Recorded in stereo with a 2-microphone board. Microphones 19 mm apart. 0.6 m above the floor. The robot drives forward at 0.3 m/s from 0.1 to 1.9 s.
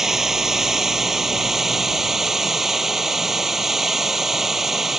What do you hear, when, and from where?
0.0 s running water: 25° right (ahead or behind); by 5.0 s 20° right (ahead or behind)